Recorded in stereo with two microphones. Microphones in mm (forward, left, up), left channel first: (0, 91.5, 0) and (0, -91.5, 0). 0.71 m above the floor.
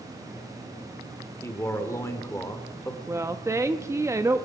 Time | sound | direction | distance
1.4 | a man speaking | 15° left (ahead or behind) | 1.7 m
3.1 | a woman speaking | 15° right (ahead or behind) | 0.6 m